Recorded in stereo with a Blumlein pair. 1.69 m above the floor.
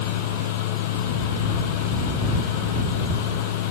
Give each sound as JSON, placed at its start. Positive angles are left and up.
{"t": 0.0, "sound": "a fan", "azimuth_deg": 50}